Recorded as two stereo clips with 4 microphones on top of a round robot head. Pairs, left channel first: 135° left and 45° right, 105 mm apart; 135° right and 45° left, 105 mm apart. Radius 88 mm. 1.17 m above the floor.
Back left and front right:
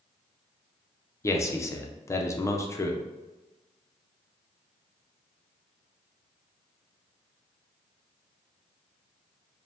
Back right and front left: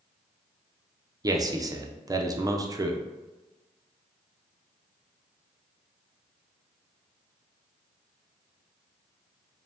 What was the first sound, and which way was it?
A man speaking, 85° left.